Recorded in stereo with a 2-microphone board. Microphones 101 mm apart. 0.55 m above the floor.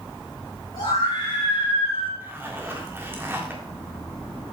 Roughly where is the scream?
Left.